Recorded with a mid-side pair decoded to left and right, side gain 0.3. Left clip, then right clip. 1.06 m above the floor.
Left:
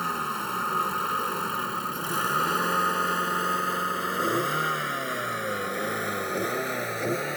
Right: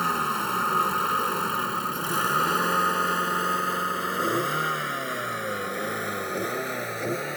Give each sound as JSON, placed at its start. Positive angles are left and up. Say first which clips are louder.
{"t": 0.0, "sound": "a vehicle", "louder": "right 4 dB", "azimuth_deg": -35}